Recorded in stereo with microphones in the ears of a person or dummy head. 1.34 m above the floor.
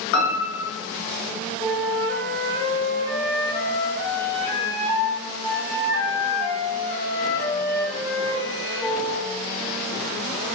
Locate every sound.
0.1 s a piano: 65° left (ahead or behind), 0.9 m
1.6 s a flute: 20° left (ahead or behind), 0.6 m